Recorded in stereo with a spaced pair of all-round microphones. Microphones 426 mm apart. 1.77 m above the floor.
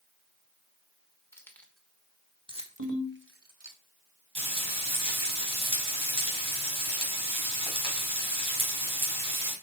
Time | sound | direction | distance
1.3 | keys jangling | 5° left (ahead or behind) | 1.6 m
2.8 | a ringtone | 45° right (ahead or behind) | 2 m
4.3 | frying | 70° right (ahead or behind) | 4.5 m